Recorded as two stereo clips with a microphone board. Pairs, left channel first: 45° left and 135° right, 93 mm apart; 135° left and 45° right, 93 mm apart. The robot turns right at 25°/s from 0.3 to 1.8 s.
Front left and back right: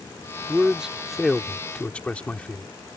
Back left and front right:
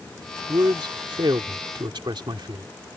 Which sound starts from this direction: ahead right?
A man speaking, at 0.5 s.